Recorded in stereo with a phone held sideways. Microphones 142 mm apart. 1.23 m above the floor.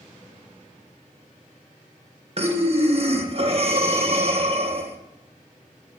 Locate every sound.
2.4 s breathing: 45° right (ahead or behind), 1.1 m